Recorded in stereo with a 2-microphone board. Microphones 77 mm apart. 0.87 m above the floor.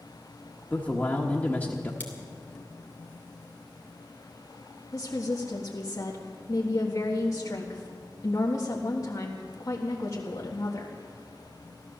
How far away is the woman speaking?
About 1.5 m.